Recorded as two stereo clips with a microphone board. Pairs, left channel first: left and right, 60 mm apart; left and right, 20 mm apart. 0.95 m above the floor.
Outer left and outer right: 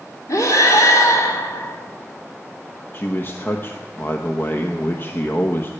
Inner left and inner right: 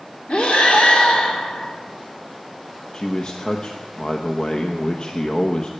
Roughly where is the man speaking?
Left.